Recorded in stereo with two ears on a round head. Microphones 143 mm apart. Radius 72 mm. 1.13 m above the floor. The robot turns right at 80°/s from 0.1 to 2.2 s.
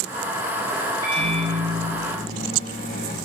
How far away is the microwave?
About 3 m.